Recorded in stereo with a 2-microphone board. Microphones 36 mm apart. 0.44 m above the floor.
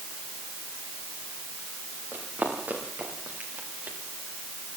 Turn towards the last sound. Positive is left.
turn(degrees=-55)  # may be behind; listen again after turning